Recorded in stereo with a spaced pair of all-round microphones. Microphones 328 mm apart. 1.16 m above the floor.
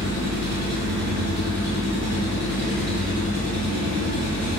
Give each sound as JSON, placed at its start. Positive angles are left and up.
{"t": 0.0, "sound": "an engine running", "side_deg": -50, "distance_m": 1.9}